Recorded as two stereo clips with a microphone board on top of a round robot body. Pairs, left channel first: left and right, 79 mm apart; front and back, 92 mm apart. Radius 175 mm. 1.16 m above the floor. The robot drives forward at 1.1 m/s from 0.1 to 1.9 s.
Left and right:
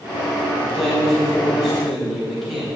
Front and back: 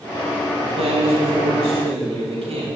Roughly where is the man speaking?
Behind.